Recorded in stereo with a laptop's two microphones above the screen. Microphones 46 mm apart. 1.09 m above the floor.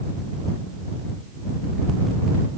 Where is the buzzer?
No buzzer in this recording.